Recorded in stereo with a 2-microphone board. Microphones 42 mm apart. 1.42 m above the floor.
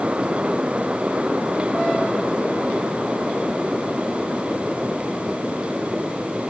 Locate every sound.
Only background noise.